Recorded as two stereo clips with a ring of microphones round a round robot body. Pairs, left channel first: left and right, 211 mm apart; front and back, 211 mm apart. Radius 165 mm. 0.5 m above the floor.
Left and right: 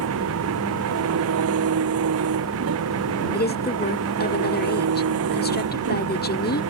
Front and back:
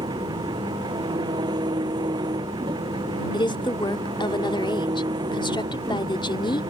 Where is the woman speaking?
65° left.